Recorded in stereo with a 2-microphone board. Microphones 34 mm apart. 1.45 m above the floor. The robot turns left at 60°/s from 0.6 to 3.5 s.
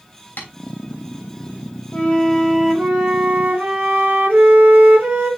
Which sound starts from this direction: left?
Tapping, at 0.4 s.